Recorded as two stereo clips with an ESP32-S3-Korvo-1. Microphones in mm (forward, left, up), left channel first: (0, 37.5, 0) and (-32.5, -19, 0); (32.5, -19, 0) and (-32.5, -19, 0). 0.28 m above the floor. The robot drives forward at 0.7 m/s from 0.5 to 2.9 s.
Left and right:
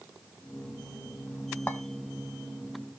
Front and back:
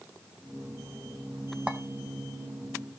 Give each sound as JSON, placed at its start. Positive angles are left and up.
{"t": 1.7, "sound": "a clink", "azimuth_deg": 110, "distance_m": 1.0}